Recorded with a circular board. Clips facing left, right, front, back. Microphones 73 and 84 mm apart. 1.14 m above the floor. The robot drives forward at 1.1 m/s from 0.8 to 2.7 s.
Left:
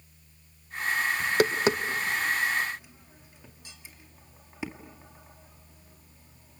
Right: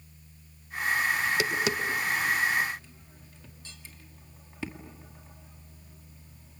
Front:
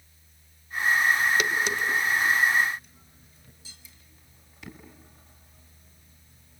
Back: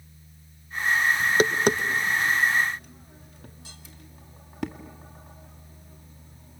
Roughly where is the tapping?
Left.